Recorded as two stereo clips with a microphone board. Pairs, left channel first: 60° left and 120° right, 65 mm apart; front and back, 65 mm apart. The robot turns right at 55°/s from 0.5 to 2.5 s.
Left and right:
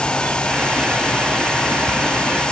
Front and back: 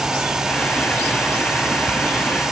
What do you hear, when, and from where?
Only background noise.